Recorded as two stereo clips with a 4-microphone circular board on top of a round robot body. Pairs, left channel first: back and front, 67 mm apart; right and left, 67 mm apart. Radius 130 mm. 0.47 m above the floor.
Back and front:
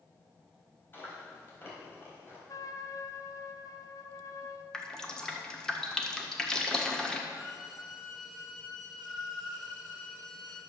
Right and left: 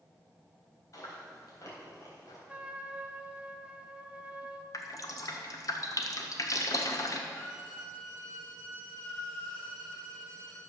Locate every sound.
0.9 s chewing: 125° right, 4 m
2.5 s a trumpet: 160° left, 1.1 m
4.7 s dripping: 100° right, 1.5 m
7.3 s a violin: 165° right, 4 m